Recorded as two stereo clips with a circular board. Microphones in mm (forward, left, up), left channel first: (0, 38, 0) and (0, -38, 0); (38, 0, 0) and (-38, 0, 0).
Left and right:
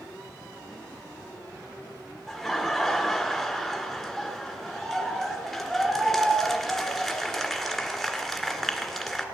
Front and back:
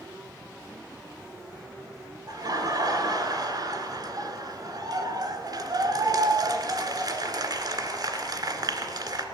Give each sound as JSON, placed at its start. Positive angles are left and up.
{"t": 2.3, "sound": "laughter", "azimuth_deg": 180, "distance_m": 1.9}